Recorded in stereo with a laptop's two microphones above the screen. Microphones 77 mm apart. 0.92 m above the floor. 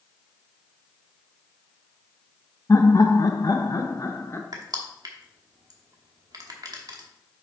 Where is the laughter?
40° left (ahead or behind), 0.7 m; by 4.4 s 35° left (ahead or behind), 0.8 m.